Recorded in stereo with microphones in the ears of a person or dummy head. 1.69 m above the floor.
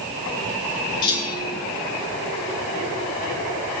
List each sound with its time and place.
1.0 s a clunk: 25° left (ahead or behind), 5 m